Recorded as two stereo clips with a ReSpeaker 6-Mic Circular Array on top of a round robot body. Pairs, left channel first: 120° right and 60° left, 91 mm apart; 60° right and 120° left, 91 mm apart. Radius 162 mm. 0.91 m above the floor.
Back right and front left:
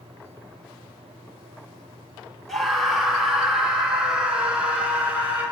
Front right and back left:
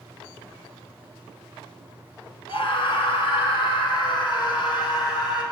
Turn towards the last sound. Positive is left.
turn(degrees=-15)